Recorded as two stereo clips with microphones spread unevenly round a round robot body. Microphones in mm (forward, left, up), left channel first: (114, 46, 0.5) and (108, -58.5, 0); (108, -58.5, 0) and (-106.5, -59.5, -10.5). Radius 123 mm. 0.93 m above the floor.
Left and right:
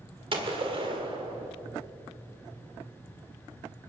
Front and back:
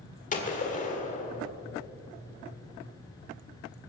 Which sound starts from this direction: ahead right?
A gunshot, at 0.3 s.